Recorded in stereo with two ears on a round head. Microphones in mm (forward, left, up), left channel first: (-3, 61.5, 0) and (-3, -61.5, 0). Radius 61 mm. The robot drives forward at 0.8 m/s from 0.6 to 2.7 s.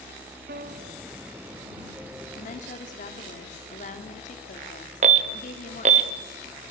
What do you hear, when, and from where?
0.5 s a piano: 70° right (ahead or behind), 1.3 m; by 1.1 s 60° right (ahead or behind), 1.4 m
2.4 s a woman speaking: 60° left (ahead or behind), 3.5 m
5.0 s an alarm: 55° right (ahead or behind), 1.2 m